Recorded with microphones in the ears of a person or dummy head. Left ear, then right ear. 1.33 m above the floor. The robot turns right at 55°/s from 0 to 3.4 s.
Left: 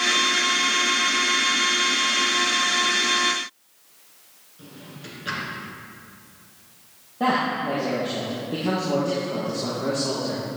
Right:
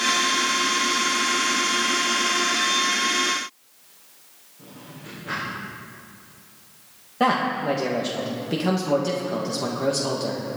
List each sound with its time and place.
4.6 s a drawer: 70° left (ahead or behind), 4.5 m
7.2 s a man speaking: 60° right (ahead or behind), 1.3 m